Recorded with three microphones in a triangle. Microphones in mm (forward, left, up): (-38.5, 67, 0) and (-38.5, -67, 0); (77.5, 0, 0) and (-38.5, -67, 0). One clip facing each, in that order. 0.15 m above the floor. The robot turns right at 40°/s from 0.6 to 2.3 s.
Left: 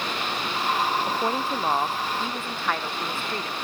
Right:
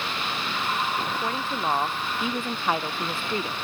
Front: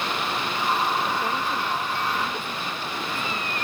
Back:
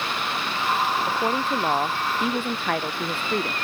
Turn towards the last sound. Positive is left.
turn(degrees=-165)